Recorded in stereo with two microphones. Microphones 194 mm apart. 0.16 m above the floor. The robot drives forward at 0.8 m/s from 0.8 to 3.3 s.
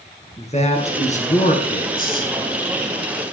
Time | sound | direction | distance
0.4 | a man speaking | 35° left (ahead or behind) | 2 m